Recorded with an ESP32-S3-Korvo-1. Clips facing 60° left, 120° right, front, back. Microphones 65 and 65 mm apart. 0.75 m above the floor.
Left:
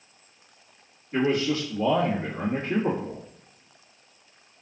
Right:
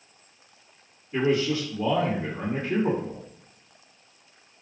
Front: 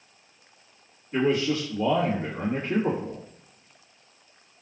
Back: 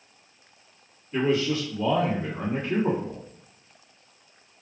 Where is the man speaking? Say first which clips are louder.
Even, even; 35° left, 1.4 m.